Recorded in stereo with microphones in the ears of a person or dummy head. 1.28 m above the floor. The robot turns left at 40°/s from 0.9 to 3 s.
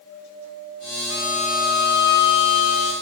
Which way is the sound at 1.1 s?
155° right.